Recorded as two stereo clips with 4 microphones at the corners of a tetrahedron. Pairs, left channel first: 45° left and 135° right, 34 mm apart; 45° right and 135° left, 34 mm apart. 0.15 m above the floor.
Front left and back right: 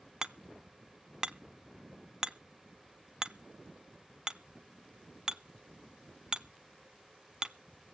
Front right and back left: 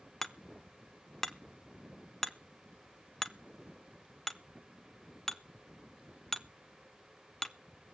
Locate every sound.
0.2 s hammering: 105° right, 0.6 m